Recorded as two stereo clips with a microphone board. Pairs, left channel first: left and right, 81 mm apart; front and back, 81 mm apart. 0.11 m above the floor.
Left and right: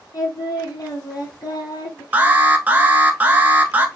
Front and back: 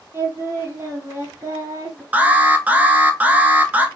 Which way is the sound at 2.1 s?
135° right.